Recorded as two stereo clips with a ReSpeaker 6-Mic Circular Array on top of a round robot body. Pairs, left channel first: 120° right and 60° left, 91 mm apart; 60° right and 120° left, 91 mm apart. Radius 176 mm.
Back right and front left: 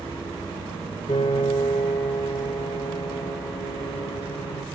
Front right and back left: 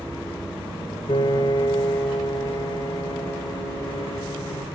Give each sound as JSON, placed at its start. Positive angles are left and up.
{"t": 1.1, "sound": "a piano", "azimuth_deg": -95, "distance_m": 0.9}